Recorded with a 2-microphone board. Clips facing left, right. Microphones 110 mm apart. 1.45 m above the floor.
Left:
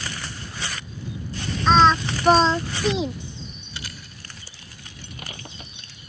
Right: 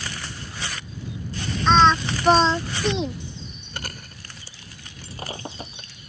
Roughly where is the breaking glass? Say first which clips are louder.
Right 6 dB; right.